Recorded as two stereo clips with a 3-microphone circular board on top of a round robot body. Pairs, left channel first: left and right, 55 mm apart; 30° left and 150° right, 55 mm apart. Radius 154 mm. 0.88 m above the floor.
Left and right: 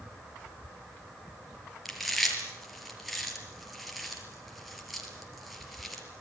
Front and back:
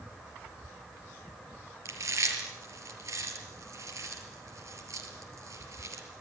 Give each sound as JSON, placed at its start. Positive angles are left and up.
{"t": 1.9, "sound": "chewing", "azimuth_deg": 180, "distance_m": 5.5}